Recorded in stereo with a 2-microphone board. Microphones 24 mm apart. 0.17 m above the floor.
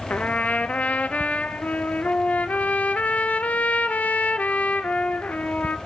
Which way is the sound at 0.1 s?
75° left (ahead or behind).